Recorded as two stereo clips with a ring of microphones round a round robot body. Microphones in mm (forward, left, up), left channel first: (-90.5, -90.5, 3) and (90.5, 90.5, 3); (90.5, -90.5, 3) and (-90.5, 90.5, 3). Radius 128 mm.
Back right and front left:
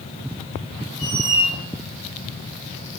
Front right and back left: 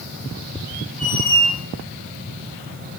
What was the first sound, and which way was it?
A squeak, 155° right.